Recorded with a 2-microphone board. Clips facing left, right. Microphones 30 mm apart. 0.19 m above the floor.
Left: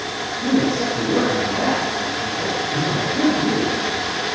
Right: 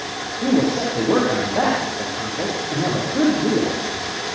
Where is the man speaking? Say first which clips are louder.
Right 1 dB; 55° right (ahead or behind), 7.5 m.